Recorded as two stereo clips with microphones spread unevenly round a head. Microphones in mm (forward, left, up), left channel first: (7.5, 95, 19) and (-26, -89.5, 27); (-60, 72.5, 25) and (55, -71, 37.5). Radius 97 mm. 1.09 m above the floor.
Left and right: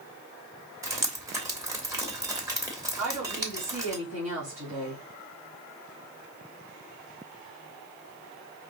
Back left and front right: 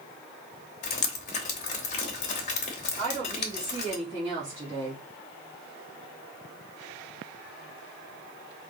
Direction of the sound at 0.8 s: 175° right.